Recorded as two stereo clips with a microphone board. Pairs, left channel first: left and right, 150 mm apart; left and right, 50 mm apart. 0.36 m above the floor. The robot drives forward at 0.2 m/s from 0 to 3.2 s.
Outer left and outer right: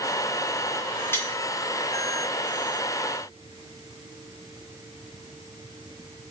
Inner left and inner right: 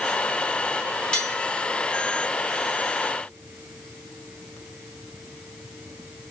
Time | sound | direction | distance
1.1 | cutlery clinking | 15° left (ahead or behind) | 0.7 m